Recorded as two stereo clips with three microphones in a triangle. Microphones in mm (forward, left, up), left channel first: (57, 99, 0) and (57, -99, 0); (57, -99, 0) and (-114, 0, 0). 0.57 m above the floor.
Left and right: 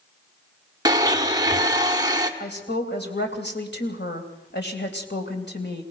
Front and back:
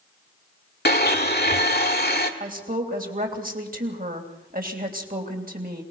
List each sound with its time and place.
0.8 s a blender: 25° right, 1.5 m
2.4 s a woman speaking: 110° left, 3 m